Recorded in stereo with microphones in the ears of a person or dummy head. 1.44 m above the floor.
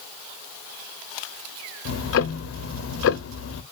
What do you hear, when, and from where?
1.9 s ticking: 60° left (ahead or behind), 0.5 m